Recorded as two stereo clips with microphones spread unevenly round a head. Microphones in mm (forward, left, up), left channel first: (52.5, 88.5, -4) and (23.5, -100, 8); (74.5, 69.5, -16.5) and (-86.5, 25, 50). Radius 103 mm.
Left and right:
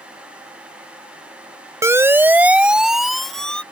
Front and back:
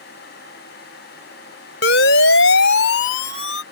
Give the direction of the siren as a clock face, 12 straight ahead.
1 o'clock.